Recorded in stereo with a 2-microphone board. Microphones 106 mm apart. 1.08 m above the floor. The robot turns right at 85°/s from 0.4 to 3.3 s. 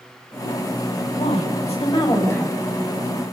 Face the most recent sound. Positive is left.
turn(degrees=-120)